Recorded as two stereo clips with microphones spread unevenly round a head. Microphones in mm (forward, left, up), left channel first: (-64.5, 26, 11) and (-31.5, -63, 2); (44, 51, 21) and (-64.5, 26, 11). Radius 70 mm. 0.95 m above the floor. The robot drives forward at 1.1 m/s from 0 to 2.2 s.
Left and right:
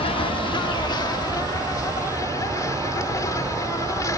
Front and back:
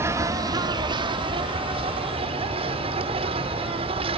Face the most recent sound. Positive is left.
turn(degrees=165)